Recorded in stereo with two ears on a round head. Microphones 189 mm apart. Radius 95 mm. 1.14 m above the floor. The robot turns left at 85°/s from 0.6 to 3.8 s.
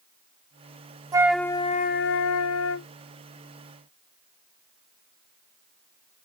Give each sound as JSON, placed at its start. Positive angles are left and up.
{"t": 1.1, "sound": "a flute", "azimuth_deg": -160}